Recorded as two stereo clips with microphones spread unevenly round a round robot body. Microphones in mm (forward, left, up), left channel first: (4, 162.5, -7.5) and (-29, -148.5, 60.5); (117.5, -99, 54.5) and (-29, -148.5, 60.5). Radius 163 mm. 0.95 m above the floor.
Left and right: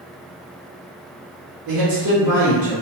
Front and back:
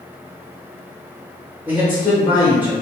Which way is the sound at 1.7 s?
85° right.